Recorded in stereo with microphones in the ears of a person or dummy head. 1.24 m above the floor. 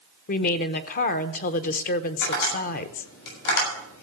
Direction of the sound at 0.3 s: 50° left (ahead or behind).